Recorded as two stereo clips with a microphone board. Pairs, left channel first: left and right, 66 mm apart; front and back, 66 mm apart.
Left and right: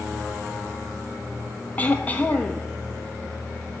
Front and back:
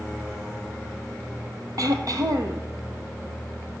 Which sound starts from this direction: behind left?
Throat clearing, at 1.8 s.